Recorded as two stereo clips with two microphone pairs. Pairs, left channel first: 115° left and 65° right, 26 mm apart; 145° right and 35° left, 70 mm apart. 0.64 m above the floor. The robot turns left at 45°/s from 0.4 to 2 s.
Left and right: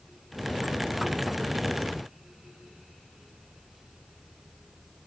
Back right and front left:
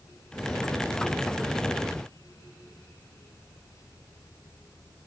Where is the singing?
I don't hear singing.